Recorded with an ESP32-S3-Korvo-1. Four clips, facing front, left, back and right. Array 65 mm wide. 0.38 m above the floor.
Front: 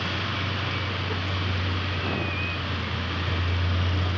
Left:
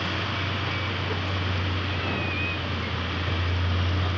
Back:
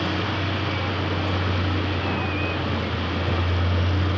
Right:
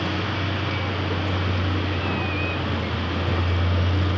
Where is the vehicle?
150° right; by 4.2 s 140° right.